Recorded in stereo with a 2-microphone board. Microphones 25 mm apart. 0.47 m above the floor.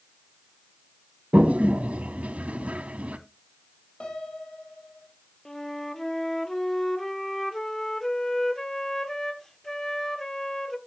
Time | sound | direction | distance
1.3 | a toilet flushing | 80° right | 1.0 m
4.0 | a piano | 45° left (ahead or behind) | 3.5 m
5.5 | a flute | 20° left (ahead or behind) | 1.1 m